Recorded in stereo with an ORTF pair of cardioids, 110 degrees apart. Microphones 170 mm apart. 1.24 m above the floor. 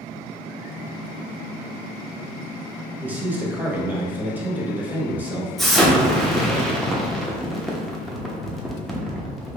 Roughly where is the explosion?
Ahead.